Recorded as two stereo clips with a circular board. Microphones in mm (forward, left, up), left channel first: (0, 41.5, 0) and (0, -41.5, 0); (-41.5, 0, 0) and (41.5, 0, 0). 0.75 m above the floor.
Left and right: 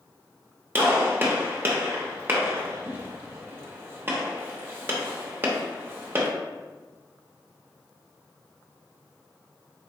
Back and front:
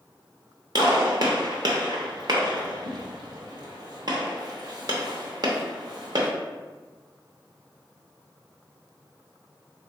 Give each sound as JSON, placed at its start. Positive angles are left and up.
{"t": 0.8, "sound": "a gunshot", "azimuth_deg": -30, "distance_m": 0.7}